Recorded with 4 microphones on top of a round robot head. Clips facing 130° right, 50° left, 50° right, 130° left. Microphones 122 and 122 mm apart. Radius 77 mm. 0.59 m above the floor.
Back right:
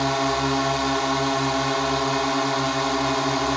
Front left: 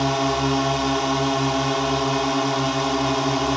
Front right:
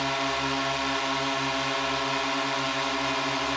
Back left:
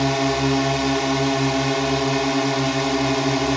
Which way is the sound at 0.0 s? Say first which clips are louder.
Front left 1 dB, back left 9 dB; 130° left.